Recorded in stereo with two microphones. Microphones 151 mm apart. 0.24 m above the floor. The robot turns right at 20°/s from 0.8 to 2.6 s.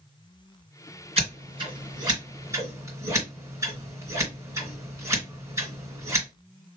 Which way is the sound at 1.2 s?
45° right (ahead or behind).